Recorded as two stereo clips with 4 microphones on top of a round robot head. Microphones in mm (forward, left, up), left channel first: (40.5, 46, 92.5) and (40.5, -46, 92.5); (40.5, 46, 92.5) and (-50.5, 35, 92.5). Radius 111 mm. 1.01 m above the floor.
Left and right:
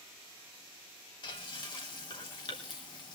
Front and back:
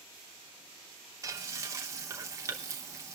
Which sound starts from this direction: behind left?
Frying, at 1.2 s.